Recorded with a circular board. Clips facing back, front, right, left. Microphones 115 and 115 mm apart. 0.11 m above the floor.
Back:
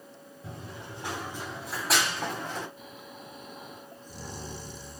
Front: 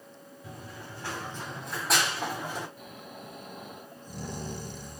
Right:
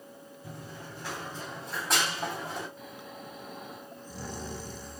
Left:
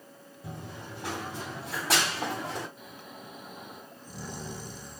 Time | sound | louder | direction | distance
0.4 | running footsteps | back 2 dB, left 3 dB | 120° left | 4 m
2.8 | snoring | front 1 dB, right 2 dB | 15° left | 3 m